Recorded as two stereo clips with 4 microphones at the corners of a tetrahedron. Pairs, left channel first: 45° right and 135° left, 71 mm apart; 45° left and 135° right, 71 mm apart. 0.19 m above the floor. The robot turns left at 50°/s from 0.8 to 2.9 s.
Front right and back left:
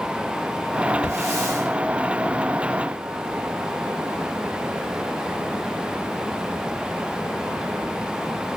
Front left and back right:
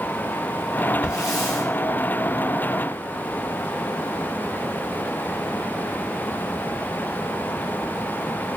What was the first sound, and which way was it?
A hiss, 150° left.